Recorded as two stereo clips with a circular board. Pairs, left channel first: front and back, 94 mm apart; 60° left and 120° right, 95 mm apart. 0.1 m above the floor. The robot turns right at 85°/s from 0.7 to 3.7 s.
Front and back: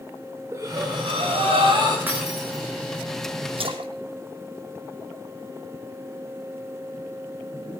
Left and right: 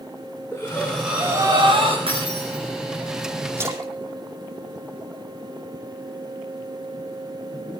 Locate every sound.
0.5 s breathing: 125° left, 5.5 m; by 2.0 s 130° right, 5.5 m
2.1 s breaking glass: 110° right, 7 m; by 2.6 s 60° right, 7 m
3.6 s a splash: 175° left, 2.5 m; by 5.7 s 175° right, 2.5 m